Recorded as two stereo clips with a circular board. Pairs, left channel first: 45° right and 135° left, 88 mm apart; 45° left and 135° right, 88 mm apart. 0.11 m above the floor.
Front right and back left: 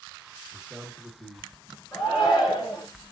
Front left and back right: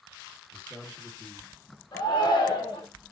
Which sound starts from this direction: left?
A man speaking, at 0.5 s.